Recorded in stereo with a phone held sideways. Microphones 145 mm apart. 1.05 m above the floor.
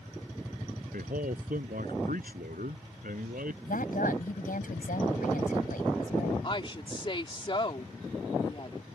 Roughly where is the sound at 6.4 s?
Left.